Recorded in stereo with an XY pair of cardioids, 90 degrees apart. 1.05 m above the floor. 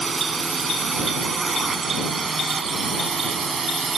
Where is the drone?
35° right; by 4.0 s 45° right.